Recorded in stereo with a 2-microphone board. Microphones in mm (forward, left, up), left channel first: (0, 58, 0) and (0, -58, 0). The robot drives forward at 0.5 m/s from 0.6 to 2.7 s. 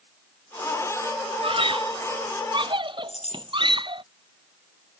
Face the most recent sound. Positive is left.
turn(degrees=80)